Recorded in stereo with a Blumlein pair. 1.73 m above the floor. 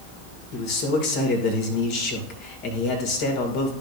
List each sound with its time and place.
0.5 s a man speaking: 45° left, 2.5 m